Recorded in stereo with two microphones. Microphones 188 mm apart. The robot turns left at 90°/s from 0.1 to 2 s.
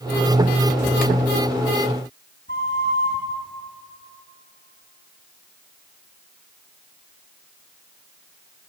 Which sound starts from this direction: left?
A flute, at 2.5 s.